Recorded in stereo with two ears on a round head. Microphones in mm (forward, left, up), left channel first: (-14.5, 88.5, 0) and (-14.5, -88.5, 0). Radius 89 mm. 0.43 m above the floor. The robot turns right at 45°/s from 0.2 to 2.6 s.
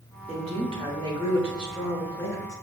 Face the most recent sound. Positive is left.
turn(degrees=35)